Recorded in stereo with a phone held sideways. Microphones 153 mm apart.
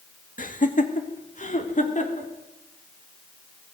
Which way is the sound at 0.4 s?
60° left (ahead or behind).